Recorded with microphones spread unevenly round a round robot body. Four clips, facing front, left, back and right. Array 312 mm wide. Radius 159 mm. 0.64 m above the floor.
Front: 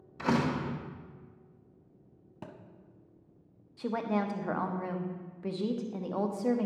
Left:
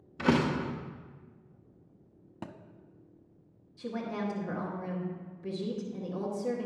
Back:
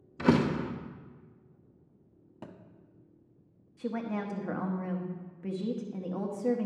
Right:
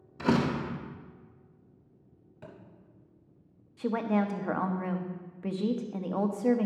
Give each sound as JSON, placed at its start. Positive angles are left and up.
{"t": 0.2, "sound": "a door slam", "azimuth_deg": 180, "distance_m": 0.8}
{"t": 2.4, "sound": "a thud", "azimuth_deg": 60, "distance_m": 0.9}
{"t": 3.8, "sound": "a woman speaking", "azimuth_deg": -100, "distance_m": 1.0}